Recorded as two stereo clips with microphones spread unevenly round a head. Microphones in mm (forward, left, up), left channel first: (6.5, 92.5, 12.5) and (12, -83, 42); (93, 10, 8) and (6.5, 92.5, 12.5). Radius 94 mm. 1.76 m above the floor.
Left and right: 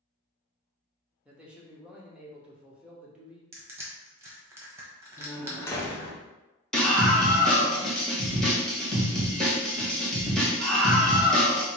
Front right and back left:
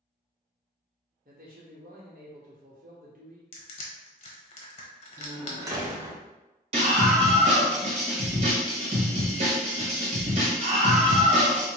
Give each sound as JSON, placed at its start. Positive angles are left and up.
{"t": 1.2, "sound": "a man speaking", "azimuth_deg": -170, "distance_m": 1.0}
{"t": 3.5, "sound": "crushing", "azimuth_deg": -25, "distance_m": 1.1}
{"t": 5.2, "sound": "a door slam", "azimuth_deg": 175, "distance_m": 0.7}
{"t": 6.7, "sound": "a scream", "azimuth_deg": -175, "distance_m": 1.3}